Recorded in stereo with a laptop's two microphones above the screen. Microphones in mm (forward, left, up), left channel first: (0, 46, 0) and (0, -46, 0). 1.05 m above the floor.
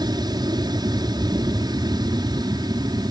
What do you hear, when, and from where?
0.0 s an aircraft: 50° right (ahead or behind)